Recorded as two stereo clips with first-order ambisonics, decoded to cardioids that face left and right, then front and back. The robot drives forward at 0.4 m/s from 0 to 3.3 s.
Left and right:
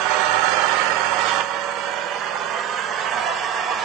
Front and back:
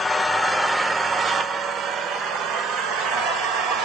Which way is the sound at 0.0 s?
75° right.